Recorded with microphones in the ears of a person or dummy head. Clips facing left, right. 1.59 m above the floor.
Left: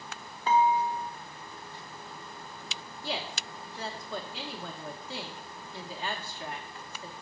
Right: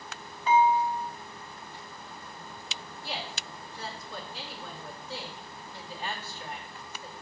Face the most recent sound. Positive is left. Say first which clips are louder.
# left 3 dB
turn(degrees=65)  # may be behind; listen again after turning